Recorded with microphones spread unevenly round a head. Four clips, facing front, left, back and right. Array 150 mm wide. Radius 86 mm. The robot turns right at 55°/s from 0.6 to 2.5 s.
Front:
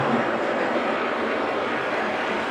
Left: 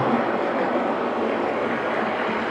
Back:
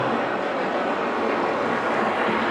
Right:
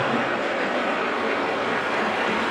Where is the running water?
90° left, 2 m; by 2.5 s 165° right, 2 m.